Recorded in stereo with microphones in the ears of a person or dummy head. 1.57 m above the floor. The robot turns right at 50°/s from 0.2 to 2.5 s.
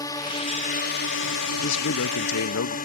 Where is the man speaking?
60° left; by 2.8 s 100° left.